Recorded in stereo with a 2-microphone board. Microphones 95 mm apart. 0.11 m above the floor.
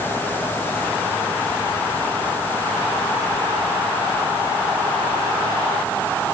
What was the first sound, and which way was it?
Only background noise.